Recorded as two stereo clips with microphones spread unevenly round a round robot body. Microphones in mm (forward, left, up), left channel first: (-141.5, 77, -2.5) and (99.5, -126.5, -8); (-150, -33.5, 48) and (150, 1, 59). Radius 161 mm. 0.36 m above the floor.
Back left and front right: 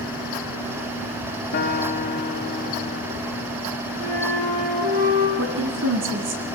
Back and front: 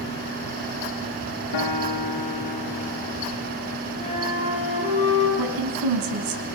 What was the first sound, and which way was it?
A guitar, 155° right.